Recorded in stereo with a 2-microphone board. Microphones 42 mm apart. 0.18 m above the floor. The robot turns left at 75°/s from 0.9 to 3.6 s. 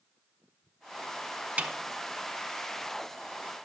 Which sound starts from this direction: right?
A snare drum, at 1.6 s.